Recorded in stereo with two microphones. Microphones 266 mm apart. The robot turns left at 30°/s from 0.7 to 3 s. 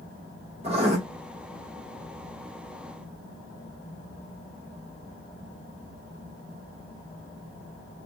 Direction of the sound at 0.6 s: 25° right (ahead or behind).